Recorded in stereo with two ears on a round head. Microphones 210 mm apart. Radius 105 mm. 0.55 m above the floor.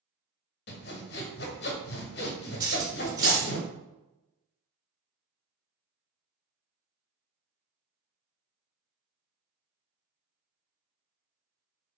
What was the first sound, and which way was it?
Sawing, 50° left (ahead or behind).